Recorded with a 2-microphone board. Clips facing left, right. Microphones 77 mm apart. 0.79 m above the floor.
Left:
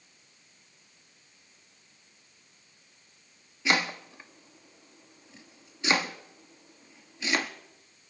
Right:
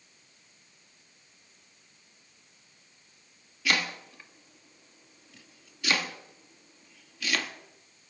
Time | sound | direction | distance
3.6 | chopping | 25° left (ahead or behind) | 1.1 m